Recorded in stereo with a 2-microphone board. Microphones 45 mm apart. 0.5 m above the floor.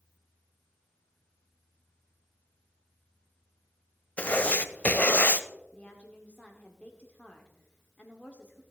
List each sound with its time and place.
4.2 s writing: 40° left (ahead or behind), 0.6 m
5.7 s a woman speaking: 30° left (ahead or behind), 1.1 m